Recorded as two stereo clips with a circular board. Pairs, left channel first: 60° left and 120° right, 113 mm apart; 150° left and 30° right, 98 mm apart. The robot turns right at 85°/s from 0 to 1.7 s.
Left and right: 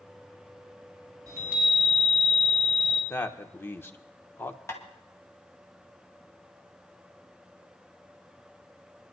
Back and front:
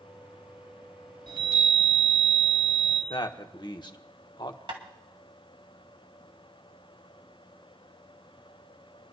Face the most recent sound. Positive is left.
turn(degrees=-5)